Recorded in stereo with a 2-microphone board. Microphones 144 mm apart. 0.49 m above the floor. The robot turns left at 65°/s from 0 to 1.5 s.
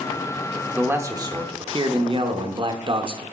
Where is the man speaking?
15° right, 0.8 m; by 3.2 s 60° right, 0.8 m.